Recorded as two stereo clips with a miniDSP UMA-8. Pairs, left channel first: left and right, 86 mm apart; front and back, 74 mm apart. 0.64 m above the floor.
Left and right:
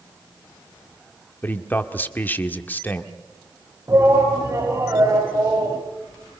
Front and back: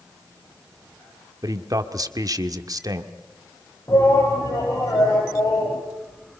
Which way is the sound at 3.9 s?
40° right.